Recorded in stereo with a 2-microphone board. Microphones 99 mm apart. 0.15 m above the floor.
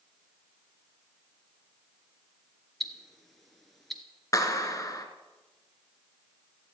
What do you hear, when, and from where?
2.8 s ticking: centre (ahead or behind), 1.7 m
4.3 s a clap: 35° left (ahead or behind), 1.8 m